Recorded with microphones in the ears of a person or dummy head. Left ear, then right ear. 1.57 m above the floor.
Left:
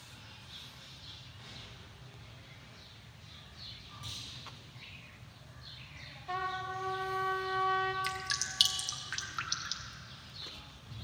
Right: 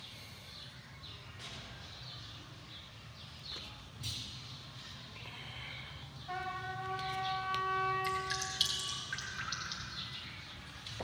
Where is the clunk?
20° left (ahead or behind), 4 m.